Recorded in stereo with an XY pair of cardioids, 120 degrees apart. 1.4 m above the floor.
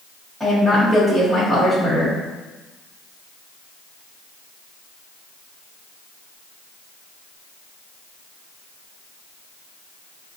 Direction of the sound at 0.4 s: 10° right.